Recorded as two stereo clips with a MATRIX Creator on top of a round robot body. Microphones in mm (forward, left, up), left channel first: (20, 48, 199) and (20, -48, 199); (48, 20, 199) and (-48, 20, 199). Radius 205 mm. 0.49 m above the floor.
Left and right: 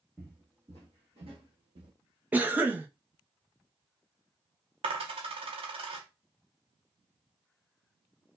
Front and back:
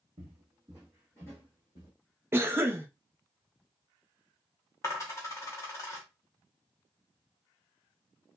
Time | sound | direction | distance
0.2 | footsteps | 170° right | 0.7 m
2.3 | a cough | 145° right | 0.7 m
4.8 | a dropped coin | 60° right | 0.5 m